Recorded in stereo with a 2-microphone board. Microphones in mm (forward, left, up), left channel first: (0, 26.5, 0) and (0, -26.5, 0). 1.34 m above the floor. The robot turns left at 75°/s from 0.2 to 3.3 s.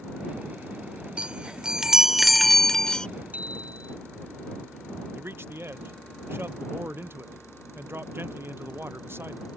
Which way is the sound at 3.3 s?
25° right (ahead or behind).